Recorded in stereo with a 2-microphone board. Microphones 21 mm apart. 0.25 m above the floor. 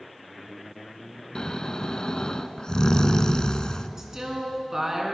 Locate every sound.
1.4 s snoring: 45° left (ahead or behind), 0.6 m
4.0 s a woman speaking: 25° right (ahead or behind), 3 m